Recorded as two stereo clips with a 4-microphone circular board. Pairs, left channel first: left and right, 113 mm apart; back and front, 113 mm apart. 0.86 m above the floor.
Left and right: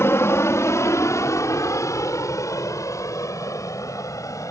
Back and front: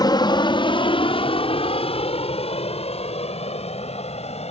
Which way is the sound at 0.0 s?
150° left.